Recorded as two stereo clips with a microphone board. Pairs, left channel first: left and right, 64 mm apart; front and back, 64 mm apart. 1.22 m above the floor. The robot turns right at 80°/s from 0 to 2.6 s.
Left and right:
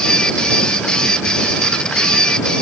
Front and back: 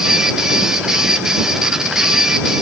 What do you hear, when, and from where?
Only background noise.